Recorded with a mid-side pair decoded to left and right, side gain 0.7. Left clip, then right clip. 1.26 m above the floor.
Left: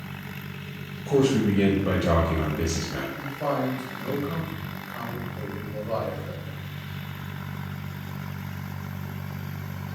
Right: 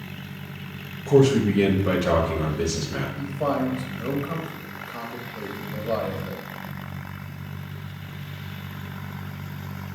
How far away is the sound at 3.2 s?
About 1.1 m.